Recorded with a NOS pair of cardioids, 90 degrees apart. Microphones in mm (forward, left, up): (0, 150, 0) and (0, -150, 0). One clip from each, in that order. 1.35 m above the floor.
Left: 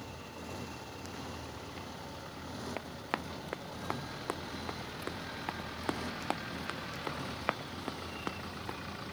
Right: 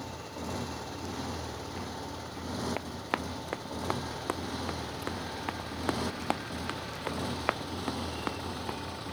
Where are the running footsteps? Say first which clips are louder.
Right 4 dB; 25° right.